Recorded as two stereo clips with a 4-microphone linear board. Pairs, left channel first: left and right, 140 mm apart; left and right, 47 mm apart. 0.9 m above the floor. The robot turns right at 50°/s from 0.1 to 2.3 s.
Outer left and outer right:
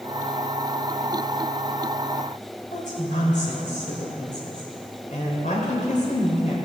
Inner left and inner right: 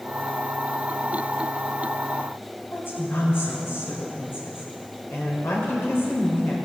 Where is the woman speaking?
55° left (ahead or behind), 4 m.